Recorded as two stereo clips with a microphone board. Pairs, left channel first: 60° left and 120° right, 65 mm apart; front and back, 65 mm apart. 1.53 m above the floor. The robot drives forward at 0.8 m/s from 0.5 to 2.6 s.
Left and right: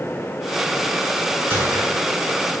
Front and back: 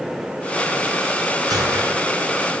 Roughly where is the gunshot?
Behind.